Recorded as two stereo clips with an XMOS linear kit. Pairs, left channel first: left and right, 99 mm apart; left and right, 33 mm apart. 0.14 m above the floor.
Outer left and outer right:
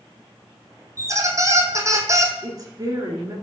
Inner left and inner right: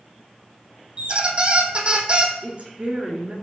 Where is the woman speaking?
40° right (ahead or behind), 2 m.